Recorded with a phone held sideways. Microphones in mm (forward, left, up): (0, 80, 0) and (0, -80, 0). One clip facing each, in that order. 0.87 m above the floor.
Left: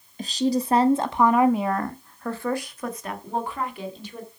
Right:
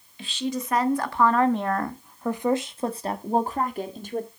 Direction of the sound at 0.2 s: 40° left (ahead or behind).